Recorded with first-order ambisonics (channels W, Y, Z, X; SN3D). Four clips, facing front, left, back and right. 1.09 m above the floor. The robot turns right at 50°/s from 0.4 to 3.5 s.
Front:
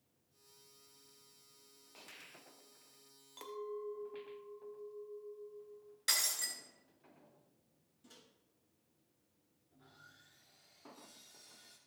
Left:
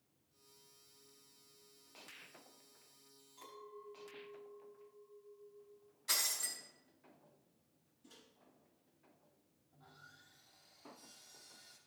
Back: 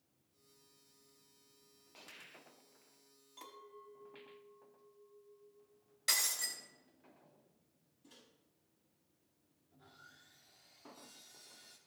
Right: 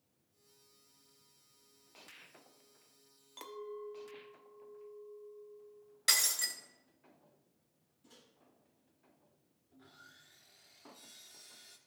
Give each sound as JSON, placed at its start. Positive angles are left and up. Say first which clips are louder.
{"t": 3.4, "sound": "a clink", "louder": "right 9 dB, front 11 dB", "azimuth_deg": -65, "distance_m": 0.9}
{"t": 6.1, "sound": "breaking glass", "louder": "right 6 dB, even", "azimuth_deg": -80, "distance_m": 2.5}
{"t": 8.0, "sound": "a microwave", "louder": "even, front 1 dB", "azimuth_deg": -5, "distance_m": 5.0}
{"t": 9.7, "sound": "sawing", "louder": "right 2 dB, back 1 dB", "azimuth_deg": -90, "distance_m": 2.5}